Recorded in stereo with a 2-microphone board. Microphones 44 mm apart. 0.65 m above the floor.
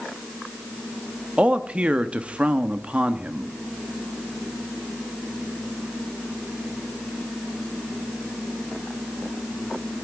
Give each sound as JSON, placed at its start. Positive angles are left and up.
{"t": 1.4, "sound": "a man speaking", "side_deg": -25, "distance_m": 0.8}